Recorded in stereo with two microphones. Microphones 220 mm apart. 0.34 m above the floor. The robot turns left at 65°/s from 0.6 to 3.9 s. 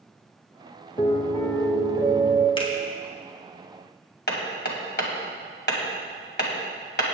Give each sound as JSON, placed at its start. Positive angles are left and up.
{"t": 1.0, "sound": "a piano", "azimuth_deg": 40, "distance_m": 1.1}
{"t": 2.6, "sound": "a finger snap", "side_deg": 25, "distance_m": 2.0}
{"t": 4.3, "sound": "hammering", "side_deg": 50, "distance_m": 1.9}